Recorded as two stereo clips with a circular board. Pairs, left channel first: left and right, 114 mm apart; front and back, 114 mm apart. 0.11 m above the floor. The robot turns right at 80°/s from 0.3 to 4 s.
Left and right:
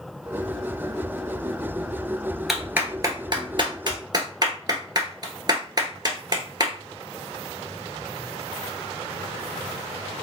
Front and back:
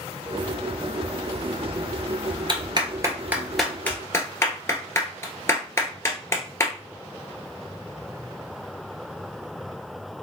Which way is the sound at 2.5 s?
Straight behind.